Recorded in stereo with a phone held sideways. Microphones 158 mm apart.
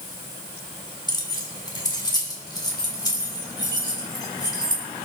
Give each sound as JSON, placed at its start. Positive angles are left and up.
{"t": 1.1, "sound": "keys jangling", "side_deg": 25, "distance_m": 1.5}